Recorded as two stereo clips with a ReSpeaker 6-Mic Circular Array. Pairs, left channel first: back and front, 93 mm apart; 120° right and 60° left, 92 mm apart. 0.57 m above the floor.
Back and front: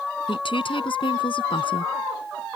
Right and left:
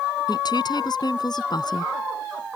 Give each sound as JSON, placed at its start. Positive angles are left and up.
{"t": 0.3, "sound": "a woman speaking", "azimuth_deg": -160}